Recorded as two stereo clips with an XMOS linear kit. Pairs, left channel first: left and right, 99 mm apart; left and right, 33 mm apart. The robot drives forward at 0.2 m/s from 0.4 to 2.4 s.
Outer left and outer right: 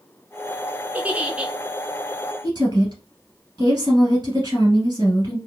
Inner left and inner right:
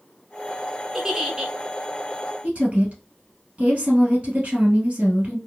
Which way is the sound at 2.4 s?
40° right (ahead or behind).